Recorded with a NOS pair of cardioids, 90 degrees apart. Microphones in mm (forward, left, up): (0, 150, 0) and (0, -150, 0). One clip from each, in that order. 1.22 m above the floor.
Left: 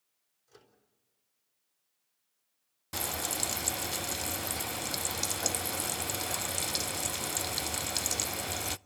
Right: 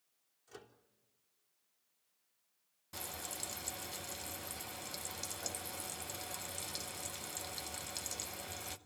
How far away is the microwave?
About 3.5 m.